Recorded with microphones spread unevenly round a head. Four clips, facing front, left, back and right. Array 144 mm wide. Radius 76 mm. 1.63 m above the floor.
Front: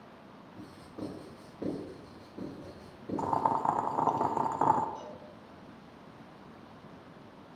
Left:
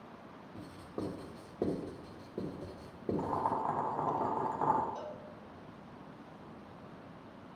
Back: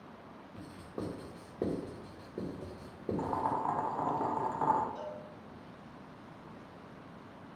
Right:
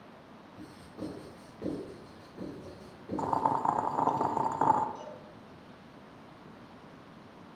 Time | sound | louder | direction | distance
0.6 | writing | left 2 dB, back 1 dB | 130° left | 2.5 m
3.2 | boiling | right 6 dB, front 5 dB | 40° right | 0.6 m
5.0 | a cowbell | left 1 dB, back 2 dB | 90° left | 1.9 m